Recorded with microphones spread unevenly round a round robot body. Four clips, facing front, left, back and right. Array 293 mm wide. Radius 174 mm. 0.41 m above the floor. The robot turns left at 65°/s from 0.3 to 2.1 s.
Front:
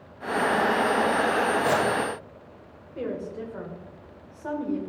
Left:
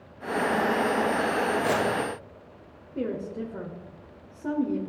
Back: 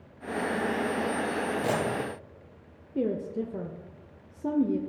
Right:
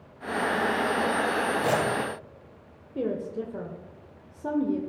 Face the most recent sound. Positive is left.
turn(degrees=180)